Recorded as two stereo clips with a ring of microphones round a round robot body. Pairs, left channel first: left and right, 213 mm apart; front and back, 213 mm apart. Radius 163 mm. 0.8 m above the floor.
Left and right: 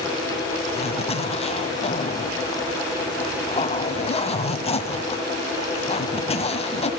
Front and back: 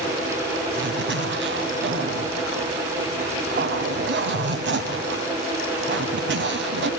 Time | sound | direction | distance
0.7 | a zipper | 150° left | 2 m